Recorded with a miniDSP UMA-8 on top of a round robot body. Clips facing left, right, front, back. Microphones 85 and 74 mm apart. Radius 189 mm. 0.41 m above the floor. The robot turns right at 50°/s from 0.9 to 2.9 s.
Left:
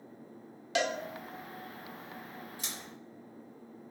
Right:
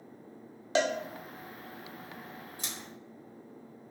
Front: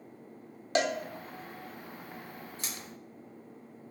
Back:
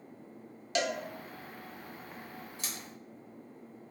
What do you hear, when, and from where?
0.8 s a cowbell: 40° right, 0.8 m
2.6 s scissors: 45° right, 2.5 m; by 2.7 s 40° right, 2.5 m